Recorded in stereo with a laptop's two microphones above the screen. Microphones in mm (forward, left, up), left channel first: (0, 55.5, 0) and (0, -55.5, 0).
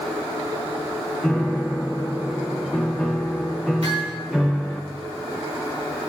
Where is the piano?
Centre (ahead or behind), 1.3 m.